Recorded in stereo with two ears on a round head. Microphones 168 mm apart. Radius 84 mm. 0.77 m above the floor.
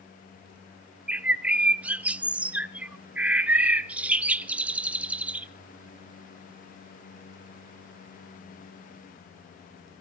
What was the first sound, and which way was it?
A bird, 10° right (ahead or behind).